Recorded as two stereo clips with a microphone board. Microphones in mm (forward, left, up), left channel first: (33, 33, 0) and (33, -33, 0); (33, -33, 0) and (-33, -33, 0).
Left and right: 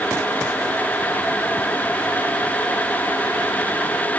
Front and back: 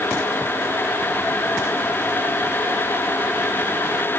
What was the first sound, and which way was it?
Only background noise.